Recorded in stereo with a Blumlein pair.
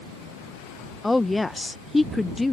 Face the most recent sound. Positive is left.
turn(degrees=10)